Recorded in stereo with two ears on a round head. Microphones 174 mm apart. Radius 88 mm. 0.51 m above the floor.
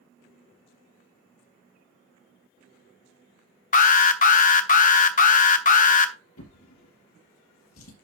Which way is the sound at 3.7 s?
40° left (ahead or behind).